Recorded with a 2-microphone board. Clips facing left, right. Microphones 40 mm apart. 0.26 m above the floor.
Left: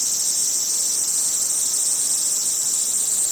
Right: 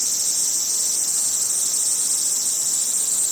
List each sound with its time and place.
Only background noise.